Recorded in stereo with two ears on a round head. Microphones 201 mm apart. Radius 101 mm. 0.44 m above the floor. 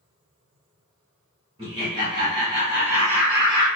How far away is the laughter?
About 1.2 m.